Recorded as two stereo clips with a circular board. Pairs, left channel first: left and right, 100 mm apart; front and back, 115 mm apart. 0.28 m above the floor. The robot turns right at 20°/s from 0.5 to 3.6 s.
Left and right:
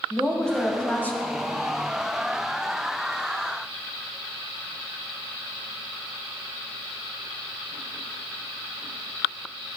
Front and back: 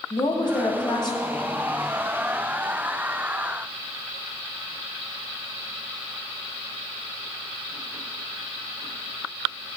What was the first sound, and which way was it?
A woman speaking, 15° left.